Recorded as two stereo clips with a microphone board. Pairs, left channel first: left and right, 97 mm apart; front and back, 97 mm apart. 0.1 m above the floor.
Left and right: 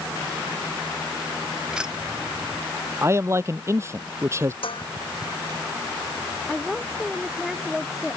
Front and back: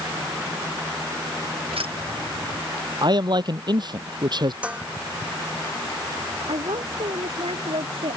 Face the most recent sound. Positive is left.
turn(degrees=180)